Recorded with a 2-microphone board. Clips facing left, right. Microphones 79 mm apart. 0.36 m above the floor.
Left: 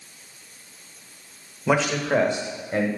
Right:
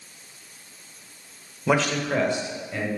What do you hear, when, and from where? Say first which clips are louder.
1.7 s a man speaking: left 1 dB; centre (ahead or behind), 0.9 m; by 2.9 s 50° left (ahead or behind), 1.5 m